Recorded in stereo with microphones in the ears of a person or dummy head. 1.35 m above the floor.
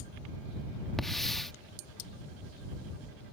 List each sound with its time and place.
1.0 s a hiss: 5° left (ahead or behind)